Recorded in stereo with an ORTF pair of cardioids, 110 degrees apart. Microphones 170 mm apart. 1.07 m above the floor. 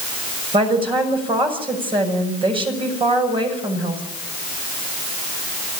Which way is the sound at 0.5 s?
35° right.